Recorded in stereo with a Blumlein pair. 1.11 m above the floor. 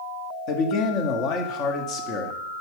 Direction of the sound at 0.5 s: 35° left.